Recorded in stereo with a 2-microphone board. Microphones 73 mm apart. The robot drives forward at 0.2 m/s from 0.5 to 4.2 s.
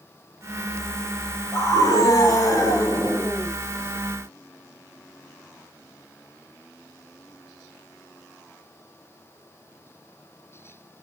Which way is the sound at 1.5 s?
45° left (ahead or behind).